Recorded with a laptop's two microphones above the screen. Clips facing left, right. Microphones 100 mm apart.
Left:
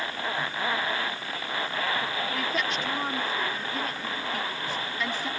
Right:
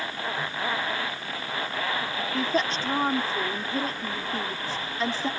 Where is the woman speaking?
35° right (ahead or behind).